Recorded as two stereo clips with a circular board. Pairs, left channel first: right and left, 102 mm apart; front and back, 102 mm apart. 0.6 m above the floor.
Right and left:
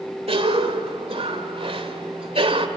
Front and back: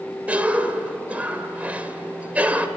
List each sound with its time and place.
0.3 s a cough: 105° left, 1.9 m